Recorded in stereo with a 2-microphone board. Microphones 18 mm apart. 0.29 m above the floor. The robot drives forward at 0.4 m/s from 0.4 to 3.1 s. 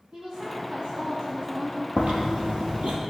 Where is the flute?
No flute in this recording.